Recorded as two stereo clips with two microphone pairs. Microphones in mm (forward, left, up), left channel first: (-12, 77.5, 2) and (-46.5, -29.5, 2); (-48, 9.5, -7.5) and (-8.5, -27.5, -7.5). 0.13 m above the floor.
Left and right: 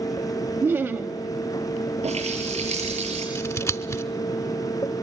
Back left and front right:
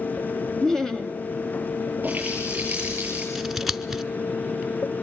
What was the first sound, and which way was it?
Laughter, 155° right.